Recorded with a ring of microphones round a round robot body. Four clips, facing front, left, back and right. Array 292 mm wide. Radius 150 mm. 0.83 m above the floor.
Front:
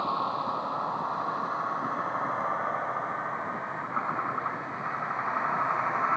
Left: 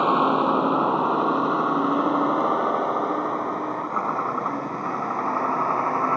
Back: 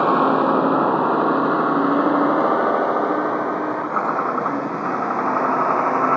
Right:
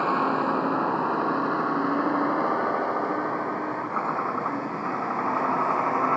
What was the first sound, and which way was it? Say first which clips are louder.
A vehicle: left 4 dB, back 13 dB; 165° left.